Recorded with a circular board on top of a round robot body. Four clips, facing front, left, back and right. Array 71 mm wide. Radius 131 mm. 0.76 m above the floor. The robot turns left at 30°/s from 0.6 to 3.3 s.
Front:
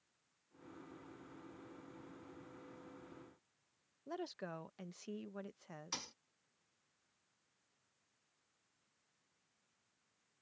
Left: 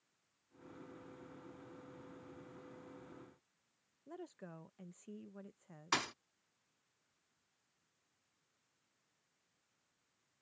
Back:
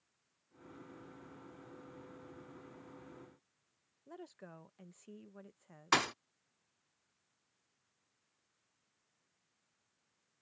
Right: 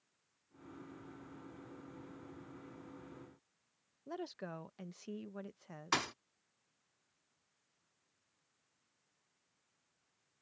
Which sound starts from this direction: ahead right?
A woman speaking, at 4.1 s.